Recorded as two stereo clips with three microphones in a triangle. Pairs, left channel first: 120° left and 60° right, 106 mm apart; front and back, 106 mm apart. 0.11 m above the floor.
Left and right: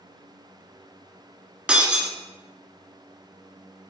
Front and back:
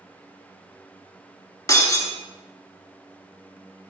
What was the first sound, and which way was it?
Breaking glass, 10° left.